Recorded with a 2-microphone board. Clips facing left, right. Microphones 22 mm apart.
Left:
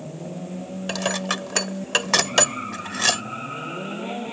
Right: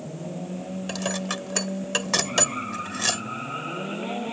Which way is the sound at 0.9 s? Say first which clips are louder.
Left 5 dB; 25° left (ahead or behind).